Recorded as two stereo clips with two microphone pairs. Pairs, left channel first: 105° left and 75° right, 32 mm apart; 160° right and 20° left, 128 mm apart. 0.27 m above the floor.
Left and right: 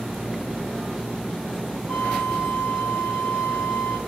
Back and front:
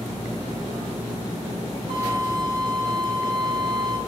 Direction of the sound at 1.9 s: 25° left.